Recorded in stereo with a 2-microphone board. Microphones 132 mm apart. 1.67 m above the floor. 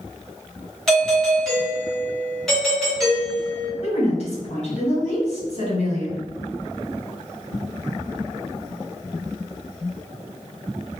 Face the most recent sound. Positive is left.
turn(degrees=50)  # may be behind; listen again after turning